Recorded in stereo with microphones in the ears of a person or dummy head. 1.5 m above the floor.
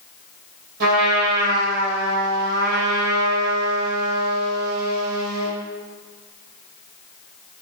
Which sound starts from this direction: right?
A trumpet, at 0.8 s.